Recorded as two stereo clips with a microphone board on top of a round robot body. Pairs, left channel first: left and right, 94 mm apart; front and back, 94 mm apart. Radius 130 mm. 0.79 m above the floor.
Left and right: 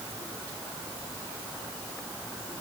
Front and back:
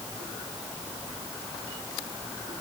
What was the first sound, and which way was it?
Only background noise.